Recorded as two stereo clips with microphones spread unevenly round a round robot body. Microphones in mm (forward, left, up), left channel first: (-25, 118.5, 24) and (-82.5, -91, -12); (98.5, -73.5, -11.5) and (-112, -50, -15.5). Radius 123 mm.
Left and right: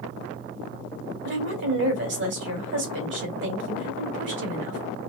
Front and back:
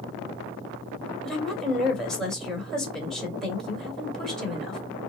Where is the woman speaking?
95° right, 2 m.